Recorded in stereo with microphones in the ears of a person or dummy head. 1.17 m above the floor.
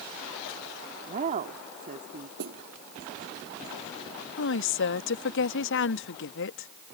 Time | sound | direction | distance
1.1 | a woman speaking | 45° right (ahead or behind) | ?
2.4 | a snare drum | 60° right (ahead or behind) | ?
4.4 | a woman speaking | 60° left (ahead or behind) | ?